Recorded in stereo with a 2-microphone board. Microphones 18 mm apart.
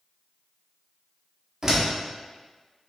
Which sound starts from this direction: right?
A door slam, at 1.6 s.